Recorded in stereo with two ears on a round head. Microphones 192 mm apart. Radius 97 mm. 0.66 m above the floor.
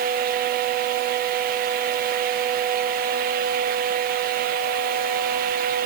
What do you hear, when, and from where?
Only background noise.